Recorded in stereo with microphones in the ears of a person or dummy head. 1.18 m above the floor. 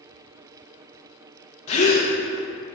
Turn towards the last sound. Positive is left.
turn(degrees=35)  # may be behind; listen again after turning